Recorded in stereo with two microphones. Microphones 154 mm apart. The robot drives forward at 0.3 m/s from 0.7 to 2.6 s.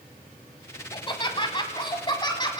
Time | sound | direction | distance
0.9 | laughter | 35° left (ahead or behind) | 1.3 m